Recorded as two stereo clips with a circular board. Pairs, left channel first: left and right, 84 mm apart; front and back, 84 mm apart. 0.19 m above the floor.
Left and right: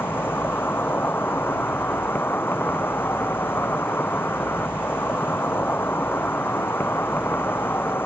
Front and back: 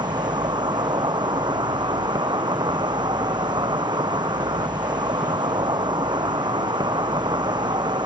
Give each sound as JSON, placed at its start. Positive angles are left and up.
{"t": 0.0, "sound": "an insect", "azimuth_deg": 155}